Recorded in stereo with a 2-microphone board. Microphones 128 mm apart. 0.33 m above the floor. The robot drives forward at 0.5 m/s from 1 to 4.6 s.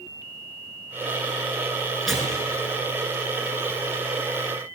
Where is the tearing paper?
Centre (ahead or behind), 5.5 m.